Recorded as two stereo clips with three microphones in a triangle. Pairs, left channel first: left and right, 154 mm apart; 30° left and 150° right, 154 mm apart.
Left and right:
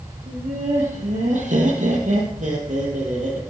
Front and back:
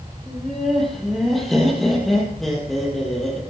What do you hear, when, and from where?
0.3 s laughter: 60° right, 4 m